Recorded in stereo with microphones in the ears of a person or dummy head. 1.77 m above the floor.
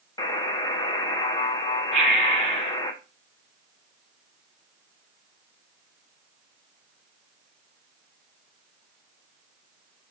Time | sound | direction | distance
0.2 | a buzzer | 25° left (ahead or behind) | 0.6 m
1.9 | breathing | centre (ahead or behind) | 1.2 m